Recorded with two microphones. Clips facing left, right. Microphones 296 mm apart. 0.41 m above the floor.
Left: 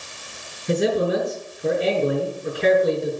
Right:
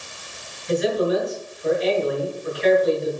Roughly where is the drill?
No drill in this recording.